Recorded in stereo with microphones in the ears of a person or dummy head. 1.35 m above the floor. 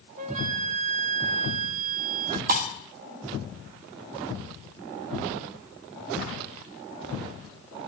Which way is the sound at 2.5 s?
50° right (ahead or behind).